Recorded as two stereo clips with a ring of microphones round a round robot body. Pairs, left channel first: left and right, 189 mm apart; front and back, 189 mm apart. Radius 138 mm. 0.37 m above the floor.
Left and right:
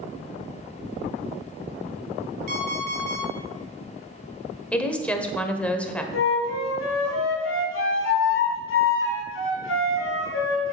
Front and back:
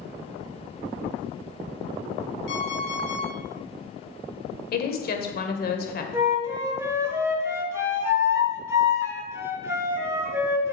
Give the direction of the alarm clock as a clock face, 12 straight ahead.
2 o'clock.